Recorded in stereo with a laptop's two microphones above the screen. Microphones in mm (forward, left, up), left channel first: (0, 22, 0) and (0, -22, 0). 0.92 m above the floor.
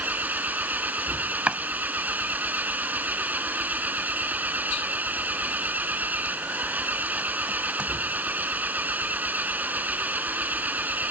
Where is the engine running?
40° right (ahead or behind).